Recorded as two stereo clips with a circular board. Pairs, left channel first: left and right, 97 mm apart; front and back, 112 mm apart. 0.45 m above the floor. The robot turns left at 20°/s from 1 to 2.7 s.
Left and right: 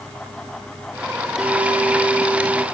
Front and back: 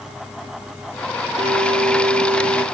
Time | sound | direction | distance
1.4 | a clink | 175° right | 5.5 m